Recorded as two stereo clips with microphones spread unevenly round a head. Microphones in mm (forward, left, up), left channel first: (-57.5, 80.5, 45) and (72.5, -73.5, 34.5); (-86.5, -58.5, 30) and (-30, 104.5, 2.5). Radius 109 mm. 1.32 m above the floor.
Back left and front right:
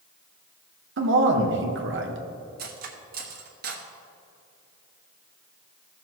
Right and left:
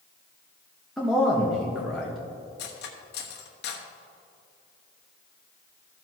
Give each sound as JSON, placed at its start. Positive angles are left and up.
{"t": 1.0, "sound": "a man speaking", "azimuth_deg": -20, "distance_m": 1.3}
{"t": 2.6, "sound": "cutlery clinking", "azimuth_deg": -100, "distance_m": 1.1}